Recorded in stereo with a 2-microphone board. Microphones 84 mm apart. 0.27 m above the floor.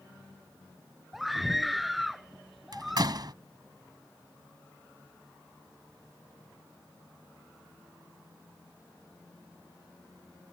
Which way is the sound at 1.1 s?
Centre (ahead or behind).